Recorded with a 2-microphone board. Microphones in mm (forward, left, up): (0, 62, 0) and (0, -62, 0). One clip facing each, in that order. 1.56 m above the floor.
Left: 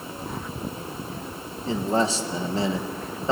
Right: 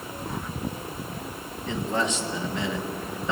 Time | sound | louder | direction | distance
1.7 | a man speaking | left 4 dB | 35° left (ahead or behind) | 1.5 m